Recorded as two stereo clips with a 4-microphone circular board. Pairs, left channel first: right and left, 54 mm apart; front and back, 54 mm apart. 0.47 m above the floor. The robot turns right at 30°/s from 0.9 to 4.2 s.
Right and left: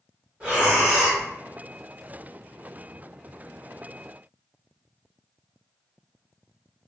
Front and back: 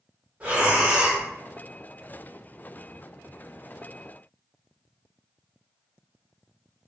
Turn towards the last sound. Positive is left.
turn(degrees=-115)